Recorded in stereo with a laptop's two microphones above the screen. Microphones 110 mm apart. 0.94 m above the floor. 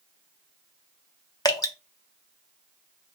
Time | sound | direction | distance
1.4 | dripping | 35° left (ahead or behind) | 0.5 m